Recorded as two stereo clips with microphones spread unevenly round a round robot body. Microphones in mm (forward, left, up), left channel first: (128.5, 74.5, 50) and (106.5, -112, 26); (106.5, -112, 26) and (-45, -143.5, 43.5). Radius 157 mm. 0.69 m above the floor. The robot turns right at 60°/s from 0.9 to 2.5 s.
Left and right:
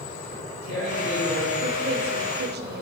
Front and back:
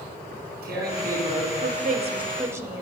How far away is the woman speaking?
About 1.3 m.